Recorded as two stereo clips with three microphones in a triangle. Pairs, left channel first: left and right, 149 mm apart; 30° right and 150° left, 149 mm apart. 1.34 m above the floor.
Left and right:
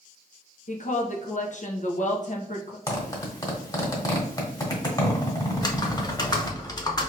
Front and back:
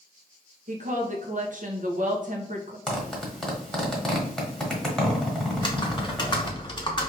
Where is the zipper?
55° left, 1.2 m.